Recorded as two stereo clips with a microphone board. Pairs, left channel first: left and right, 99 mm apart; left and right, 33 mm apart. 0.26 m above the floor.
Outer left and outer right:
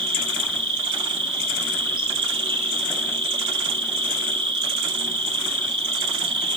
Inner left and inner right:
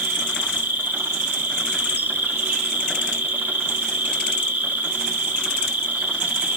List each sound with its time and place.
0.0 s an insect: 50° right (ahead or behind), 5 m